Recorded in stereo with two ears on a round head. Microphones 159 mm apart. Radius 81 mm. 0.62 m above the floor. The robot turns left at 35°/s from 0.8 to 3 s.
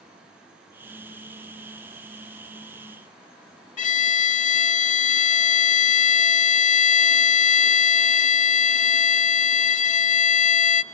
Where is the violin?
40° left (ahead or behind), 0.8 m.